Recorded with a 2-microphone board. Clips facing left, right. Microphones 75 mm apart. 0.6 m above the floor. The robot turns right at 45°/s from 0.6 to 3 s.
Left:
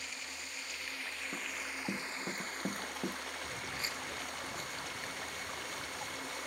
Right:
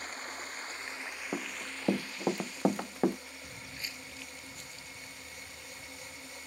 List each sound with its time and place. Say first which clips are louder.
0.0 s running water: right 5 dB; 40° right; by 6.5 s 70° left
1.3 s running footsteps: right 5 dB; 60° right (ahead or behind)
3.4 s footsteps: left 5 dB; 5° left (ahead or behind); by 6.4 s 60° left (ahead or behind)